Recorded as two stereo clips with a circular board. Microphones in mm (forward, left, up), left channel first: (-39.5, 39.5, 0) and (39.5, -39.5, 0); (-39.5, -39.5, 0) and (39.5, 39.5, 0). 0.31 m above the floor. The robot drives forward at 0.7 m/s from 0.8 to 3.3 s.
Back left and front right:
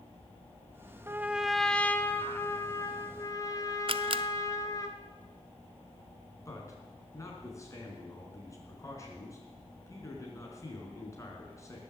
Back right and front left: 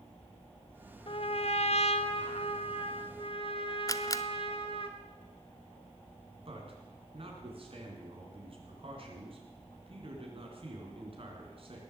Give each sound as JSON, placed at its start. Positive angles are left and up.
{"t": 1.1, "sound": "a trumpet", "azimuth_deg": -110, "distance_m": 0.5}
{"t": 3.9, "sound": "a camera shutter", "azimuth_deg": -75, "distance_m": 0.5}
{"t": 6.5, "sound": "a man speaking", "azimuth_deg": 75, "distance_m": 4.0}